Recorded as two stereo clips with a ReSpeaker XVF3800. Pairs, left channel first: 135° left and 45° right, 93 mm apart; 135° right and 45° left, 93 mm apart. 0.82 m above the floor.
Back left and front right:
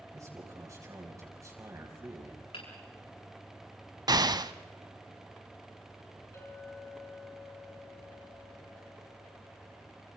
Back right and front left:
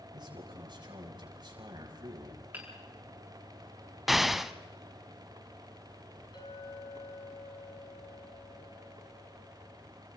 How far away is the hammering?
About 7.5 m.